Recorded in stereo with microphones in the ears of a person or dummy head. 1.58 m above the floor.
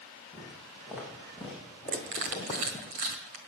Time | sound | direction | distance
0.3 | footsteps | 10° right (ahead or behind) | 5 m
1.9 | crushing | 35° right (ahead or behind) | 1.7 m